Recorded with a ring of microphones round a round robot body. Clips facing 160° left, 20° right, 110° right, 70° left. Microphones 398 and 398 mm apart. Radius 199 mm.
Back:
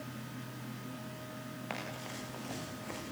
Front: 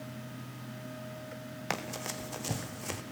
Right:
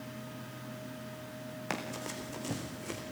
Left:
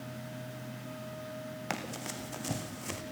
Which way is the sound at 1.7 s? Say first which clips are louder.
Front 4 dB, right 2 dB; 15° right.